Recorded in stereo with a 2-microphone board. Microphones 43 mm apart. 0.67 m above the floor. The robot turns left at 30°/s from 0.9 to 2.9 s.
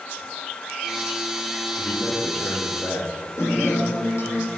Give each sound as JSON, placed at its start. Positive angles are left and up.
{"t": 1.8, "sound": "a man speaking", "azimuth_deg": 155, "distance_m": 1.2}
{"t": 3.4, "sound": "a guitar", "side_deg": 75, "distance_m": 1.3}